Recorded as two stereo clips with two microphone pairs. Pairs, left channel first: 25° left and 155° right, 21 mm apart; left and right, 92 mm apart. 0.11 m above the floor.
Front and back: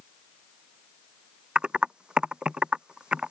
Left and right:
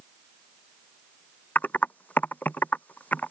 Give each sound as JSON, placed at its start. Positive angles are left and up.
{"t": 1.6, "sound": "typing on a keyboard", "azimuth_deg": 160}